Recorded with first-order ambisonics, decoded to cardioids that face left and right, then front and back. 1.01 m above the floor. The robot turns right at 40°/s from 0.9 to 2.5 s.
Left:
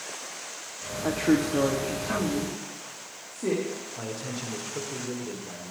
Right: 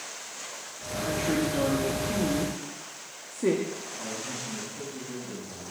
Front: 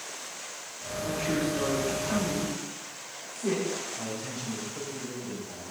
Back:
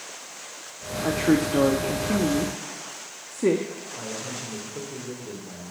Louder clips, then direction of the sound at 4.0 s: Even, back 2 dB; 120° left.